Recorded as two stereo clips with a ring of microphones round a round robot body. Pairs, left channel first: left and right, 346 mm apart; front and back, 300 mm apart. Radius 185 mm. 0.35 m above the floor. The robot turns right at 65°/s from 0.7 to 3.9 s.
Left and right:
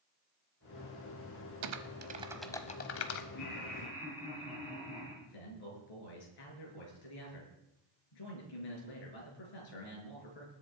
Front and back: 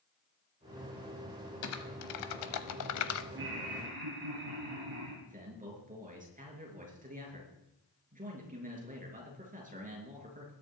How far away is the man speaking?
About 5.5 m.